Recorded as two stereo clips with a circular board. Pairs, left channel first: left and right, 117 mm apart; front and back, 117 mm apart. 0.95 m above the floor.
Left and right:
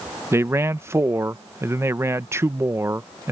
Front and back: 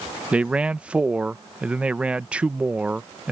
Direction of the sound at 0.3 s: 115° right.